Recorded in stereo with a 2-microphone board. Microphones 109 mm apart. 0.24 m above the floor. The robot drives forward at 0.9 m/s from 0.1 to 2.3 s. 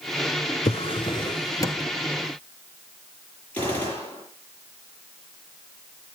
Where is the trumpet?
No trumpet in this recording.